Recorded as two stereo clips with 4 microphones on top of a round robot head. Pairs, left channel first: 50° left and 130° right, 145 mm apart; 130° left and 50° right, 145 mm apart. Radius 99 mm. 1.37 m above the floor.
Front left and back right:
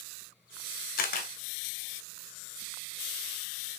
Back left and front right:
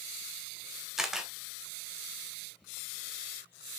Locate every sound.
1.0 s a camera shutter: 35° left, 2 m